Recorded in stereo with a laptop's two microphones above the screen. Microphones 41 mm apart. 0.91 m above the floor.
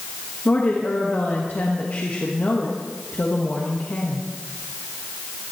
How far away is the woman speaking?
About 1.2 m.